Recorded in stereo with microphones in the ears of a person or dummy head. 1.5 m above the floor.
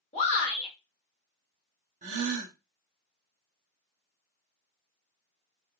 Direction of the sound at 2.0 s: 40° right (ahead or behind).